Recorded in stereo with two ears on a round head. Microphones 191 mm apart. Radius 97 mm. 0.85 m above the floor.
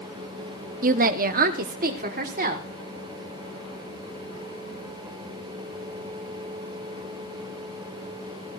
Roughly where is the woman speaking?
Right.